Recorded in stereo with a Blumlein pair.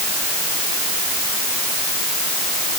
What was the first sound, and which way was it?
Only background noise.